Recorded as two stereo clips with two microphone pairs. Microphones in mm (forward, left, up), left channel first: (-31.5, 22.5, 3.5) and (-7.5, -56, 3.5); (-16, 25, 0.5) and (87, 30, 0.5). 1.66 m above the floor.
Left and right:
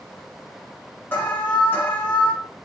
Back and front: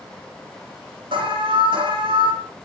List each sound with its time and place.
1.1 s an alarm: 40° left, 9.5 m